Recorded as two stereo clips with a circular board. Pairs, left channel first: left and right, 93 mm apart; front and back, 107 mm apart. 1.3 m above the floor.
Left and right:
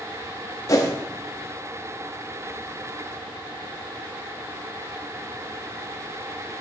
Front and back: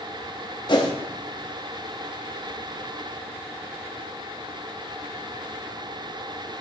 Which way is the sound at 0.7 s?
40° left.